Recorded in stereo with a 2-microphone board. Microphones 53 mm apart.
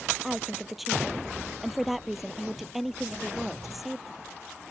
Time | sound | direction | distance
0.2 | a woman speaking | 5° right (ahead or behind) | ?